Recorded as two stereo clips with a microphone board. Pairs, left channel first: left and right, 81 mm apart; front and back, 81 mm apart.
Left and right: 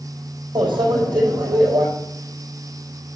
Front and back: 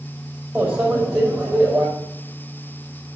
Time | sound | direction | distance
0.6 | a microwave | 105° right | 5 m